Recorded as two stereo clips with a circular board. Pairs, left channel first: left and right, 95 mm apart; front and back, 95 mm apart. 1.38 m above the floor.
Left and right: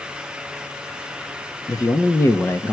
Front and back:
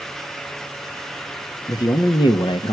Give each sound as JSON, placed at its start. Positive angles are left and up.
{"t": 1.7, "sound": "a man speaking", "azimuth_deg": 45, "distance_m": 2.0}